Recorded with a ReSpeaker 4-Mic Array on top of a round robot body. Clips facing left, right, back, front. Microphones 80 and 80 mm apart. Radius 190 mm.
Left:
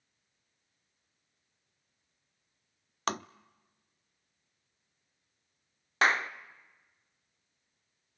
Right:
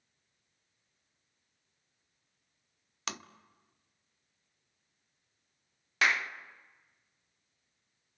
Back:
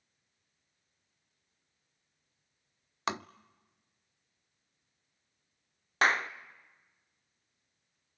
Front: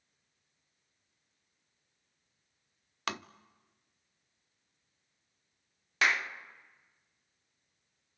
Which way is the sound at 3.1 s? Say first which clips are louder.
Left 9 dB, back 3 dB; 120° left.